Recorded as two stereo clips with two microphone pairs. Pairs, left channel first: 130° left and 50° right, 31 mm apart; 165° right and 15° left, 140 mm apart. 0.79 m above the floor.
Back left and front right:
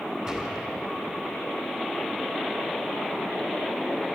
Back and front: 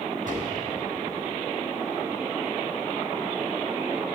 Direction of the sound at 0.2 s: 10° left.